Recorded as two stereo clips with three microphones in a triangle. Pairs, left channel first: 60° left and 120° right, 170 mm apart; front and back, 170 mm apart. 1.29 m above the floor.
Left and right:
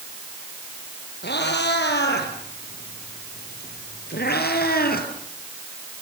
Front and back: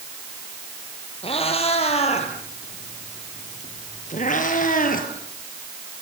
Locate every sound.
1.2 s a cat meowing: 55° left, 5.5 m; by 5.1 s 35° left, 4 m